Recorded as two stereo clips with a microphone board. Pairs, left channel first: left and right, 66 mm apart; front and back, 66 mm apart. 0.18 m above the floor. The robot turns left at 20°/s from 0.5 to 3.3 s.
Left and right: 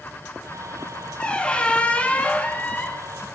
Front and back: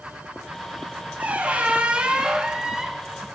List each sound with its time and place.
1.2 s a squeak: 145° left, 0.7 m; by 3.1 s 110° left, 0.7 m